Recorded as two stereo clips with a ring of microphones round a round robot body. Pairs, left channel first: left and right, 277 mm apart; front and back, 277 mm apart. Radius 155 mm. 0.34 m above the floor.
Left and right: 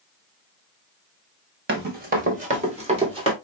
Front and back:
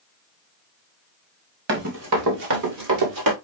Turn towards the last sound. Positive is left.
turn(degrees=-165)